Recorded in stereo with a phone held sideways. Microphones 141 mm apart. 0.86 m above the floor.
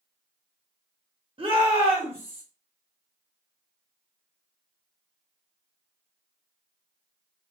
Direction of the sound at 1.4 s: 40° right (ahead or behind).